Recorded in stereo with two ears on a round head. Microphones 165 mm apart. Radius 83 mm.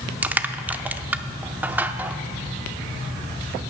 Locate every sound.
0.2 s crushing: 10° right (ahead or behind), 0.6 m